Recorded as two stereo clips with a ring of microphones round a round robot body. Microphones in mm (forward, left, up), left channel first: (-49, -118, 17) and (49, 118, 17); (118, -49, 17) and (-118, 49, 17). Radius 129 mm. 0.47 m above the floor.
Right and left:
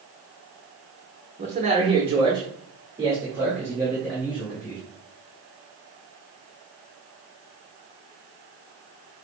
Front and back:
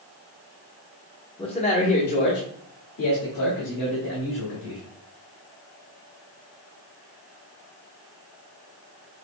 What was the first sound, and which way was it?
A man speaking, 30° left.